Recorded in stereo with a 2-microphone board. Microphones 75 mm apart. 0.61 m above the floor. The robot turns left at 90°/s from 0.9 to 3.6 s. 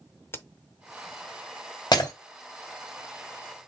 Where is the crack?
30° left (ahead or behind), 0.6 m.